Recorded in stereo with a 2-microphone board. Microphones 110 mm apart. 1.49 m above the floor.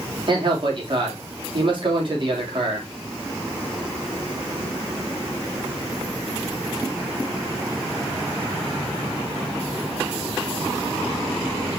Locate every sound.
0.3 s a man speaking: 50° right (ahead or behind), 3 m